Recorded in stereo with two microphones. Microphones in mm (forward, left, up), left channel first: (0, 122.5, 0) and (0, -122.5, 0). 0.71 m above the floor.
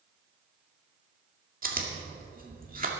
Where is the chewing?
35° right (ahead or behind), 2 m.